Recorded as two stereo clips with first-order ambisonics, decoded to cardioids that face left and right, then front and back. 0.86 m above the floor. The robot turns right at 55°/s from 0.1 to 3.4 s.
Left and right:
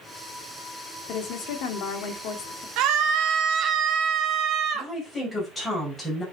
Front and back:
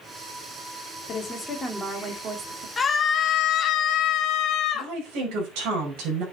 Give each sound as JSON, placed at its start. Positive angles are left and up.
{"t": 1.1, "sound": "a woman speaking", "azimuth_deg": 55, "distance_m": 2.0}
{"t": 2.8, "sound": "a scream", "azimuth_deg": -75, "distance_m": 1.5}
{"t": 4.7, "sound": "a woman speaking", "azimuth_deg": 170, "distance_m": 5.5}